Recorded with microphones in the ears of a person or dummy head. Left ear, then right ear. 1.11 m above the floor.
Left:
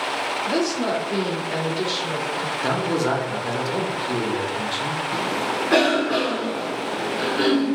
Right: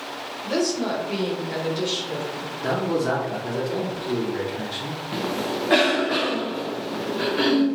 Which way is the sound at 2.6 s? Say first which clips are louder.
Even; 20° left (ahead or behind).